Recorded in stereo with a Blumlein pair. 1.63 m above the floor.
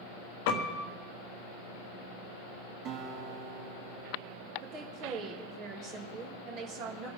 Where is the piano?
45° left, 1.4 m.